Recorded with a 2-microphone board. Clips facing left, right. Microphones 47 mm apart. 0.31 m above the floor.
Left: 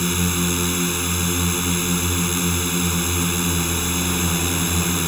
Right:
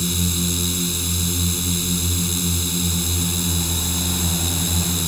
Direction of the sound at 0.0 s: 40° left (ahead or behind).